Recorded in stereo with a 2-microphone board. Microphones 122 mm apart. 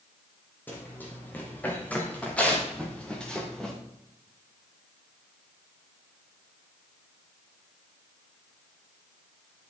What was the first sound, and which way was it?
Running footsteps, 15° left (ahead or behind).